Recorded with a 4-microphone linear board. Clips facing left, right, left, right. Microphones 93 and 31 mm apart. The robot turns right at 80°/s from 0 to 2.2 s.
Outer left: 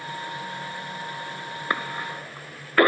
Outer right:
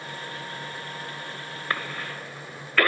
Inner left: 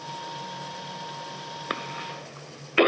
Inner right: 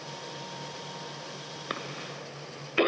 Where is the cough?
20° left (ahead or behind), 0.9 m; by 2.9 s 25° left (ahead or behind), 0.9 m.